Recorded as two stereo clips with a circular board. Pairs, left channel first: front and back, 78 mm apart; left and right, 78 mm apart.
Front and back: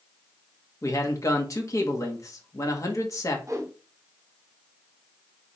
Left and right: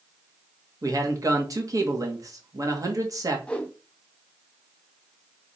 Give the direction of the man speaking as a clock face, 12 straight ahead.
2 o'clock.